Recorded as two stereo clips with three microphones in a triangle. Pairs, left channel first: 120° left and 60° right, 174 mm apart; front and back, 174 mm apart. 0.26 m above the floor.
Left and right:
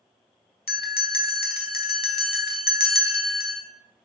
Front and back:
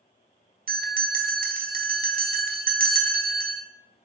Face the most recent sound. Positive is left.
turn(degrees=150)